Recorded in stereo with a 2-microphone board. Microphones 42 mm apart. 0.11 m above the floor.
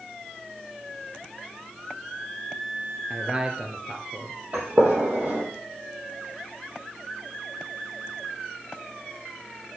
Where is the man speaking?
25° right (ahead or behind), 1.4 m.